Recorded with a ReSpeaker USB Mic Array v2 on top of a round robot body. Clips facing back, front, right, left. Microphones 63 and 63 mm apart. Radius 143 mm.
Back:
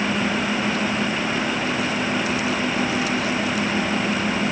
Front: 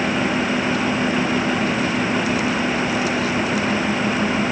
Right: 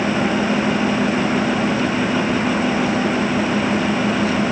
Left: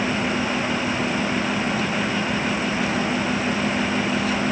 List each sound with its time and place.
Only background noise.